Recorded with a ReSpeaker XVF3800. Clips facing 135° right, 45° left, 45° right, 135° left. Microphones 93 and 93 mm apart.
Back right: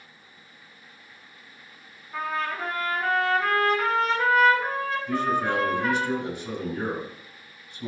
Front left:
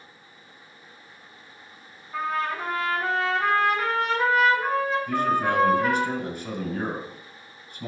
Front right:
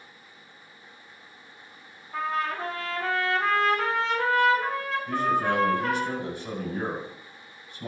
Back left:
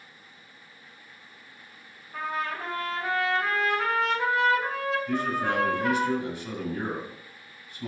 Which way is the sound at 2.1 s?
45° right.